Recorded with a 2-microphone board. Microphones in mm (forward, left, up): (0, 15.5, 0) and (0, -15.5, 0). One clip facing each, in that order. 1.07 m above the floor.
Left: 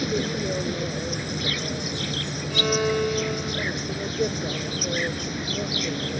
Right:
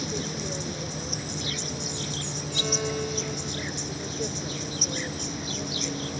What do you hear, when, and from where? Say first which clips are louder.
0.0 s an insect: left 6 dB; 35° left (ahead or behind)
2.5 s a violin: left 6 dB; 35° left (ahead or behind)